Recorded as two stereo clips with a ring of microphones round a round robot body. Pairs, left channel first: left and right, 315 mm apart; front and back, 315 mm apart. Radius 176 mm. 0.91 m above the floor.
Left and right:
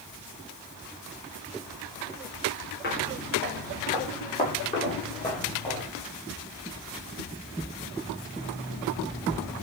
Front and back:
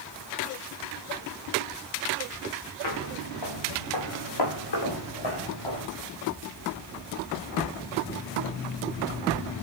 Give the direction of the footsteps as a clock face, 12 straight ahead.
11 o'clock.